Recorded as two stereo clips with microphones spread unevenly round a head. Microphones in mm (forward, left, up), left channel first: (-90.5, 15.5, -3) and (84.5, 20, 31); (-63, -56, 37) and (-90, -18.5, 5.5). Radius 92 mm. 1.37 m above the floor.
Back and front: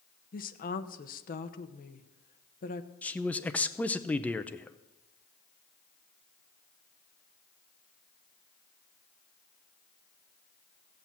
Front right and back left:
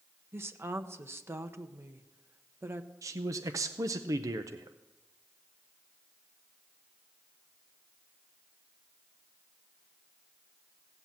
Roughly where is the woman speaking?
Behind left.